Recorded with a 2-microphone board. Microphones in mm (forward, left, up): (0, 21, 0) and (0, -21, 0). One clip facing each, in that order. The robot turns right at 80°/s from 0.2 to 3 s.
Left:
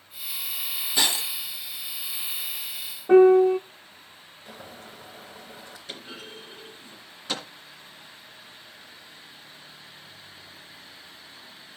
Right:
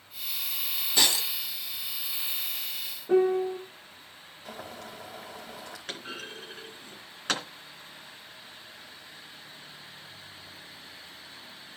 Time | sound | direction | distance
1.0 | breaking glass | 15° left (ahead or behind) | 2 m
3.1 | a piano | 55° left (ahead or behind) | 0.8 m
4.5 | boiling | 75° right (ahead or behind) | 4.5 m
5.9 | a clunk | 60° right (ahead or behind) | 2.5 m